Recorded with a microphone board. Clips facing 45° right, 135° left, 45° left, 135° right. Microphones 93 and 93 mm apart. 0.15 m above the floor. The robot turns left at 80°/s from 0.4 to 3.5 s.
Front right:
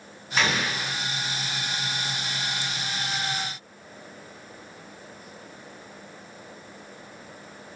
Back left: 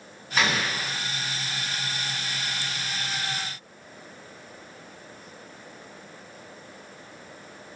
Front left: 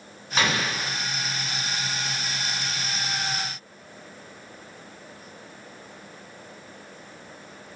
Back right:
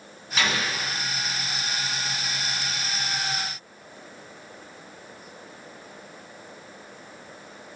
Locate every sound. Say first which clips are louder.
0.4 s an explosion: even, front left 1 dB; 50° left, 1.0 m; by 1.0 s 5° left, 1.0 m